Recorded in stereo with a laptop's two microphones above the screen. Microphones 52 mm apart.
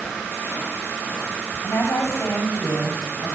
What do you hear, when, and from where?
1.6 s a woman speaking: 55° left (ahead or behind), 5 m; by 3.4 s 50° left (ahead or behind), 6.5 m